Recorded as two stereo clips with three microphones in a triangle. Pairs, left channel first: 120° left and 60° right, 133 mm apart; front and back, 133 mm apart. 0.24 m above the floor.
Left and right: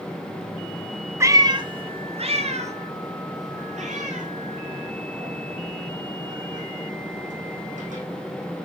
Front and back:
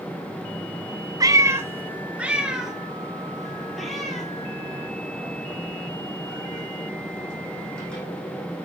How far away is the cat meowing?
About 1.1 m.